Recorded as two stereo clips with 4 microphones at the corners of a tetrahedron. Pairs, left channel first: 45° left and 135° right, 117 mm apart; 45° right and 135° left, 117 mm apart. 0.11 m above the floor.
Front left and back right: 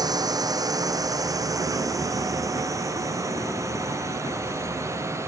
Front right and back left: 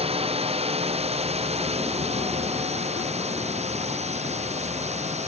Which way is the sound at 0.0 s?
170° left.